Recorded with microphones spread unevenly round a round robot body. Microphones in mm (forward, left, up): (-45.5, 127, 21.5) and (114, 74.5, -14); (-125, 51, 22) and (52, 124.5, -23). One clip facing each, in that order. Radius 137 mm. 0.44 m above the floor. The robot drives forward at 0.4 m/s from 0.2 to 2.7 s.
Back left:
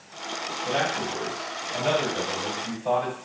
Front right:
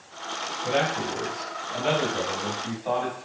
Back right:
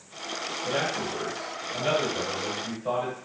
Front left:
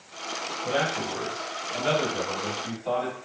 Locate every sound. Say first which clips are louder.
0.6 s a man speaking: front right 2 dB, front left 2 dB; 90° right, 1.6 m; by 3.1 s 120° right, 1.8 m